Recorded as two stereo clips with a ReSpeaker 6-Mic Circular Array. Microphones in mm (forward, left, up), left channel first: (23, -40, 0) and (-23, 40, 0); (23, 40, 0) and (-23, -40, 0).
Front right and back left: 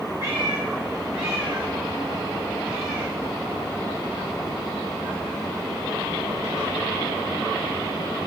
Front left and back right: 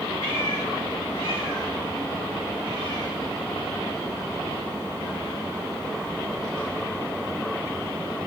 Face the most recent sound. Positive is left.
turn(degrees=30)